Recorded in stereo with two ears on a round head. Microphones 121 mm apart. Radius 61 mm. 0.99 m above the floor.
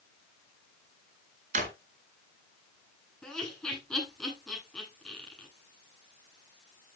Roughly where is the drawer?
Right.